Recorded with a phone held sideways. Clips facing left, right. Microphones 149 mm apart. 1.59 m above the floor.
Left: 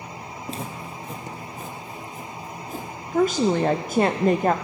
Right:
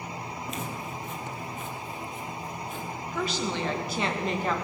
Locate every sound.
0.5 s footsteps: 30° left (ahead or behind), 2.0 m; by 2.9 s 40° left (ahead or behind), 2.5 m
3.1 s a woman speaking: 50° left (ahead or behind), 0.5 m